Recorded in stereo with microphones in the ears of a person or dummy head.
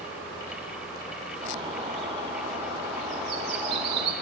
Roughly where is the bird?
Right.